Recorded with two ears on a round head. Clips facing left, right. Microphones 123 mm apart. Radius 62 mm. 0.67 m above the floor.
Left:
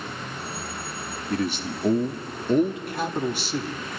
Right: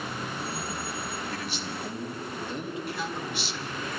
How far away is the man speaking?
About 1.0 m.